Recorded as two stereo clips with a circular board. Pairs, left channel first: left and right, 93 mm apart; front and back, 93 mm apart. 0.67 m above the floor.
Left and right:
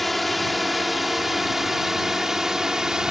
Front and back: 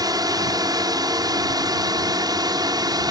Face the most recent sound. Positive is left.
turn(degrees=-170)